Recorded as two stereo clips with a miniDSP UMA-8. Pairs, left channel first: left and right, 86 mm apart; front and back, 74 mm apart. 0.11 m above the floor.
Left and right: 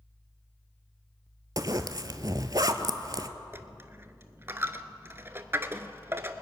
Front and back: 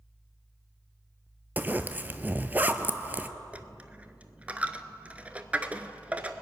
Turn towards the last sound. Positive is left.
turn(degrees=-125)